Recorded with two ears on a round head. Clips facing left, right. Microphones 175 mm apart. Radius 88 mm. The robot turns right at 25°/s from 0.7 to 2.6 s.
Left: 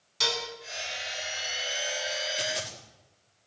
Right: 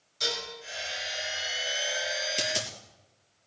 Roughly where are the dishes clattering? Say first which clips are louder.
Left 2 dB; left.